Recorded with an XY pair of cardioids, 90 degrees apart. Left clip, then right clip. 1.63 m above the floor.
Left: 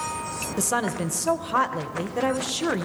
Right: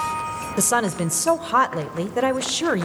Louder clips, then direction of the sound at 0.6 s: Right 4 dB; 40° right.